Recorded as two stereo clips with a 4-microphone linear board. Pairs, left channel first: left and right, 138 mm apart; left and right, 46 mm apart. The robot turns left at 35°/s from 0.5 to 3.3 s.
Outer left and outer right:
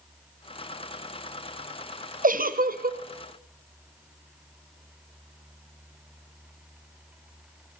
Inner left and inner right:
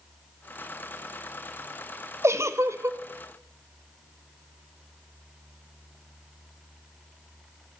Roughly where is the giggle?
Right.